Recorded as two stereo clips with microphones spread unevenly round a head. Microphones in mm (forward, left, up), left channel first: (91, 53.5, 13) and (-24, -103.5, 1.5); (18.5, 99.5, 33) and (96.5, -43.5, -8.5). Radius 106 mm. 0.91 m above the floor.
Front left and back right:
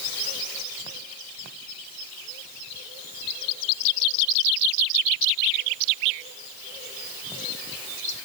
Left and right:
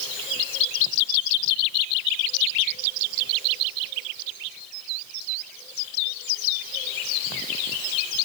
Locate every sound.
Only background noise.